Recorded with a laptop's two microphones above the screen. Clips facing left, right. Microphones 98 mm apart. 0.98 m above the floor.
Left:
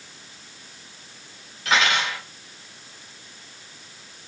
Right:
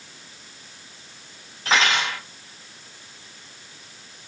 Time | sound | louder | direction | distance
1.6 | cutlery clinking | even | 35° right (ahead or behind) | 2.5 m